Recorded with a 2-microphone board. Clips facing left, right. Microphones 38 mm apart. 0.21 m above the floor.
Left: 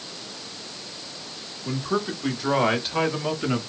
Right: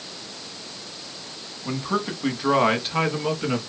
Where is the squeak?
No squeak in this recording.